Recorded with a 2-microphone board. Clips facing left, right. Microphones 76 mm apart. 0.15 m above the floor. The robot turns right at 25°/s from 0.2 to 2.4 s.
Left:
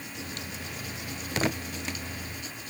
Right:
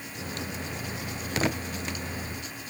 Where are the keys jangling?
No keys jangling in this recording.